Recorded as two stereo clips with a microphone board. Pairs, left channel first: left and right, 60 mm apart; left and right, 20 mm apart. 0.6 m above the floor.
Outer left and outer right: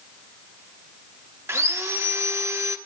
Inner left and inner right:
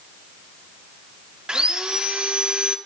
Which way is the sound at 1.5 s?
50° right (ahead or behind).